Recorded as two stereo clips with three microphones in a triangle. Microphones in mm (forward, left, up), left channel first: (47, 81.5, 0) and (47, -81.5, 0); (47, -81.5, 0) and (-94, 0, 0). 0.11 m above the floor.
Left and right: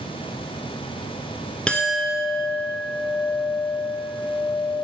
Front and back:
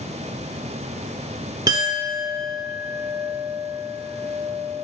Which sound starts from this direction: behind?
A clink, at 1.7 s.